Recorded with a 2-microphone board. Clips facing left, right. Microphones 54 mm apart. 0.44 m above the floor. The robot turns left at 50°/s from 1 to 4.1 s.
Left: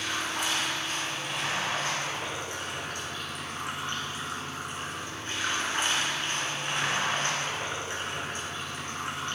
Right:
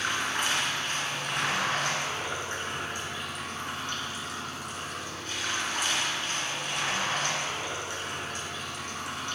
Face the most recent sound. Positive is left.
turn(degrees=145)